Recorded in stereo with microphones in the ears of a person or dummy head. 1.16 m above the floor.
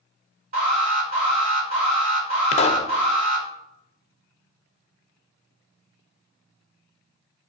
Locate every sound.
0.5 s an alarm: 50° right (ahead or behind), 3.5 m
2.5 s a pop: 30° left (ahead or behind), 0.7 m